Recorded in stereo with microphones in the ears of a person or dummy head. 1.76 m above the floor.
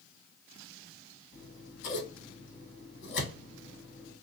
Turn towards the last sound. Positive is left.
turn(degrees=60)  # may be behind; listen again after turning